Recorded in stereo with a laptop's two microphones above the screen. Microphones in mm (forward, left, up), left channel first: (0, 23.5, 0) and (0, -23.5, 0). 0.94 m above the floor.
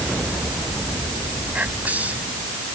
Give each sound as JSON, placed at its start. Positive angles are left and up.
{"t": 1.5, "sound": "whispering", "side_deg": -30}